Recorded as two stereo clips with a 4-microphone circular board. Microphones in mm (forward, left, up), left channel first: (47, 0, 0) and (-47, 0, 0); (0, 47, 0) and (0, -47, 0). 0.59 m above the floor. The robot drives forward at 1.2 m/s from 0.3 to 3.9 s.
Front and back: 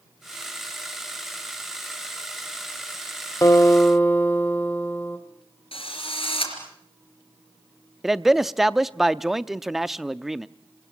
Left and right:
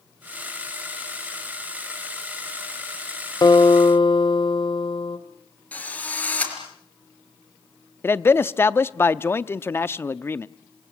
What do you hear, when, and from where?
3.4 s a guitar: 50° left, 1.9 m; by 5.2 s 70° left, 1.6 m
5.7 s a drill: 15° left, 4.5 m
8.0 s a man speaking: 100° left, 0.6 m